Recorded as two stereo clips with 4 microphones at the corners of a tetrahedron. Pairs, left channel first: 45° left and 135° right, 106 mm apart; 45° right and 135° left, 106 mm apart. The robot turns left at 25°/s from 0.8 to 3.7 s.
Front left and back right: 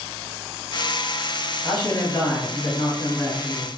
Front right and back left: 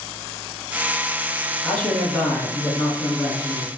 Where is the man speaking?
25° left, 1.3 m; by 3.7 s 25° right, 1.3 m.